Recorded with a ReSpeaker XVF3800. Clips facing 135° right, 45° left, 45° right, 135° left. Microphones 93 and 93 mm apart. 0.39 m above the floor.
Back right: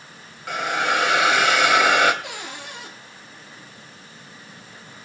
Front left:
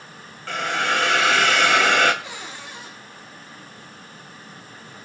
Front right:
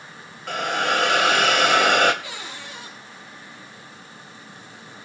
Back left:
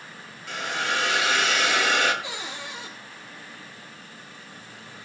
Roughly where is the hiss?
Ahead right.